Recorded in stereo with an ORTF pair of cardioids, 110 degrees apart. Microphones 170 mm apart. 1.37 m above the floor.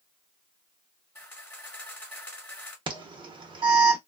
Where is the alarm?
25° right, 1.2 m.